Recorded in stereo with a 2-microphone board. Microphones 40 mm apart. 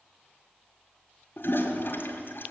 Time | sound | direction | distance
1.4 | a toilet flushing | 65° left (ahead or behind) | 1.8 m